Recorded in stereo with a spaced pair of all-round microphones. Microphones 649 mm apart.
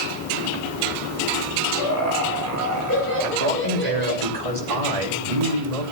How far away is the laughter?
About 6.5 m.